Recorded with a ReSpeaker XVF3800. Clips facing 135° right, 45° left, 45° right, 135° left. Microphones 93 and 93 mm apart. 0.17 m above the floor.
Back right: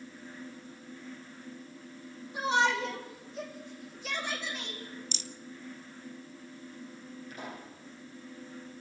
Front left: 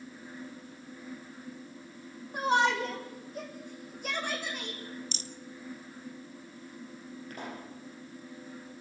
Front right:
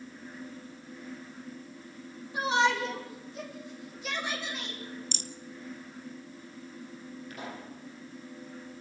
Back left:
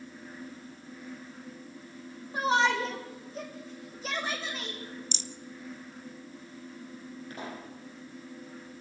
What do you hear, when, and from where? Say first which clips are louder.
2.3 s a shout: front left 1 dB, back left 1 dB; 85° left, 6 m; by 4.8 s 80° left, 8 m
5.1 s a rattle: front left 1 dB, even; 5° right, 0.7 m
7.3 s a pop: front left 2 dB, back left 2 dB; 80° left, 6.5 m